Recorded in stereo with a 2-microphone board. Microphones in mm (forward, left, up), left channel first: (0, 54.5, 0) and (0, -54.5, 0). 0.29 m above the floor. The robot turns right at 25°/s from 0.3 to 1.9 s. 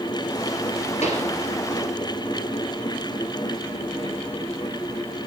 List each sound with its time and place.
1.0 s a pop: 80° left, 2.5 m